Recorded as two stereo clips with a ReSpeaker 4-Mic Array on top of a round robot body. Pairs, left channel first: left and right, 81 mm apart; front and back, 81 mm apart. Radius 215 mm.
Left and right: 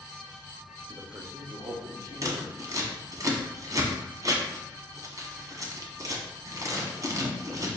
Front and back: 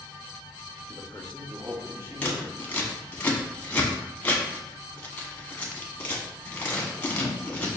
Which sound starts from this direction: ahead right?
A man speaking, at 0.9 s.